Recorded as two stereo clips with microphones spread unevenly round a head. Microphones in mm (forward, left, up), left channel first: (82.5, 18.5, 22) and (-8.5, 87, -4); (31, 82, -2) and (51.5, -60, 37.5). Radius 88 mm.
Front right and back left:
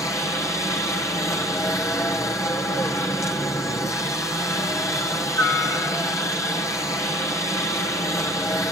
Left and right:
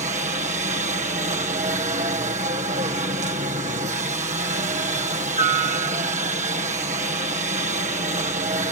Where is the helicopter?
110° right.